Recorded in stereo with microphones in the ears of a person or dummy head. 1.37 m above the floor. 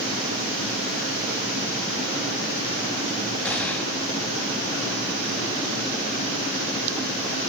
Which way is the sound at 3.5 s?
5° left (ahead or behind).